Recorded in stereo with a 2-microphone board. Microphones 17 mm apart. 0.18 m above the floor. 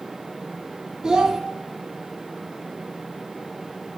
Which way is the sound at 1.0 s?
40° right (ahead or behind).